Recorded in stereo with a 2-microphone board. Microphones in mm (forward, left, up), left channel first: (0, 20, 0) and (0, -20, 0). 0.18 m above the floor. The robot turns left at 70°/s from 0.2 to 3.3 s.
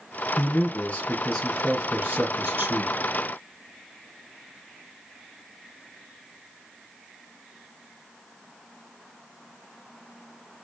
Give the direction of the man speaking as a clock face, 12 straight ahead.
9 o'clock.